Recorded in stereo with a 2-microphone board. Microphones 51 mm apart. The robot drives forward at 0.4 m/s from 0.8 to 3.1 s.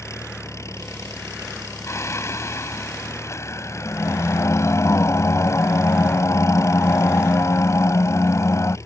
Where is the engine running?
75° left (ahead or behind); by 8.9 s 80° left.